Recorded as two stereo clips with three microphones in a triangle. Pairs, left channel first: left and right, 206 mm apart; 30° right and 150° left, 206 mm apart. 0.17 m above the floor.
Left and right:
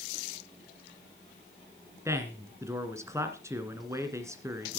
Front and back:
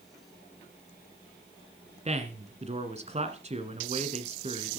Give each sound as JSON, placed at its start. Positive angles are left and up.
{"t": 2.0, "sound": "a man speaking", "azimuth_deg": -160, "distance_m": 1.9}